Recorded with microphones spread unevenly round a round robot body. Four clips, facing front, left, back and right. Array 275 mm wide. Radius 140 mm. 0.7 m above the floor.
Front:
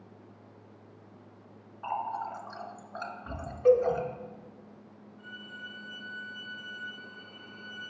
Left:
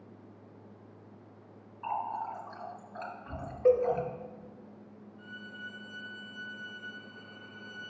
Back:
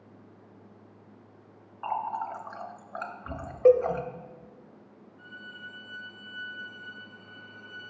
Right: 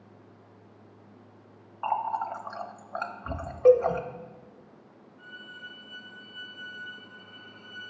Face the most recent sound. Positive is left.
turn(degrees=85)